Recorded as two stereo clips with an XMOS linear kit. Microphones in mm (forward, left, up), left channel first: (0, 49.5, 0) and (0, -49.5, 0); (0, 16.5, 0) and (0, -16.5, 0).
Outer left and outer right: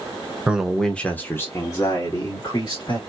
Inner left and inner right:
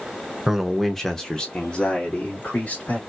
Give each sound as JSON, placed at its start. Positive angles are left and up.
{"t": 0.5, "sound": "a man speaking", "side_deg": -10, "distance_m": 0.9}